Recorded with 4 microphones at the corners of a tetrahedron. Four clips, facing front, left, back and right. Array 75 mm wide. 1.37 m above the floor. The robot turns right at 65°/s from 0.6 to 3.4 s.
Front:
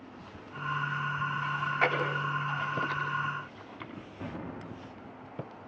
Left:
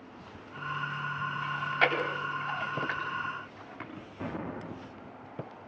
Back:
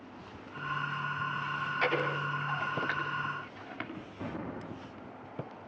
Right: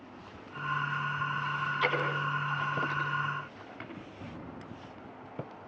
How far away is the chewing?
About 9.5 m.